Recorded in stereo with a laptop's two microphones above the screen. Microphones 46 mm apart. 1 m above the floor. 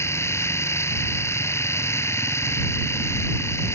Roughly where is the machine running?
Left.